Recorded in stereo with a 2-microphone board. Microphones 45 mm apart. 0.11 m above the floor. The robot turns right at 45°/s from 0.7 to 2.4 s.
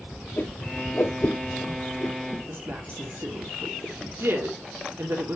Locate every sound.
0.4 s a whoosh: 40° left (ahead or behind), 2.5 m
2.5 s a woman speaking: 60° right (ahead or behind), 3 m